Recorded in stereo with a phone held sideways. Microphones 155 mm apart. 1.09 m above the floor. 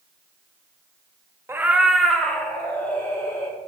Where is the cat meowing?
15° right (ahead or behind), 0.6 m; by 3.6 s 20° left (ahead or behind), 1.7 m.